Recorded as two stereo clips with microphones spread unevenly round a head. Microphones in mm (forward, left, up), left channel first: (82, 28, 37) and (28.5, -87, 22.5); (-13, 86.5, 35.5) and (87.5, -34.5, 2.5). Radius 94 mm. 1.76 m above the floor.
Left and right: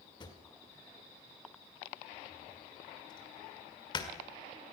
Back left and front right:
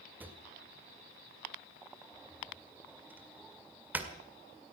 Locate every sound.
0.2 s a drawer: 35° left, 1.9 m